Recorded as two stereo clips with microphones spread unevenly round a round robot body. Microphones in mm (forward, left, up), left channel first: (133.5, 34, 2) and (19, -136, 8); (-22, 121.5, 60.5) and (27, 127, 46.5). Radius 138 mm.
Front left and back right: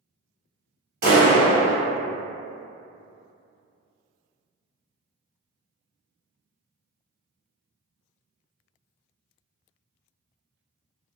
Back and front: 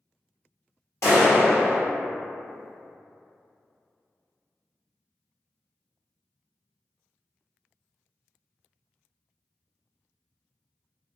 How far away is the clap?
About 1.6 m.